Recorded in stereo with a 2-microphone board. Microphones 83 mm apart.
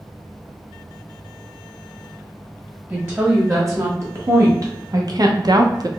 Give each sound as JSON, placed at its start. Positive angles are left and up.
{"t": 2.9, "sound": "a woman speaking", "side_deg": -30, "distance_m": 1.6}